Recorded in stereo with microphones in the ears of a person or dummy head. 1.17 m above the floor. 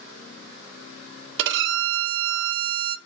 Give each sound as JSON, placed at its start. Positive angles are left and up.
{"t": 1.4, "sound": "a violin", "side_deg": -65, "distance_m": 0.6}